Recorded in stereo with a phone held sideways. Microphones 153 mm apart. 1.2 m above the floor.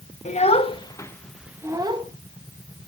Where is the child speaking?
50° left (ahead or behind), 1.2 m; by 2.0 s 35° right (ahead or behind), 1.0 m.